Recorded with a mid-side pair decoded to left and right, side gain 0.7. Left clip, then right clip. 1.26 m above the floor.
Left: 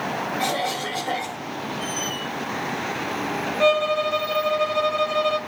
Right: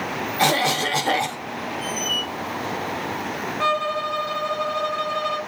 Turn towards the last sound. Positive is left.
turn(degrees=5)